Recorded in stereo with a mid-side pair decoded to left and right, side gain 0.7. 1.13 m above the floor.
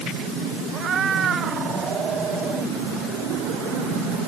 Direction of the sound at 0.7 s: 35° right.